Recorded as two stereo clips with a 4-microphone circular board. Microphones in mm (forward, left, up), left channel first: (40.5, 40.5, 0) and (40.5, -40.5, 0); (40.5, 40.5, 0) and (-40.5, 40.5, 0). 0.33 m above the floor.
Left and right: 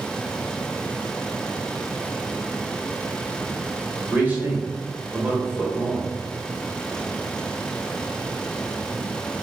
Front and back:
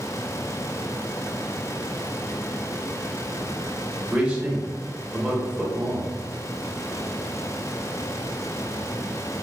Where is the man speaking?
125° right, 1.0 m.